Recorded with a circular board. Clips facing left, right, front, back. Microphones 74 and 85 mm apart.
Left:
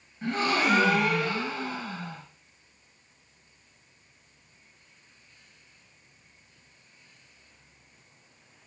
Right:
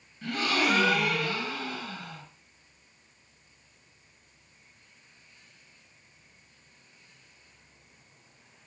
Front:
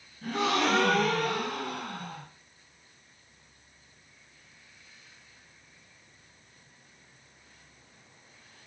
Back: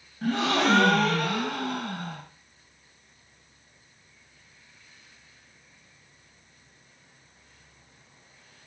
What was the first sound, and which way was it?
A gasp, 150° left.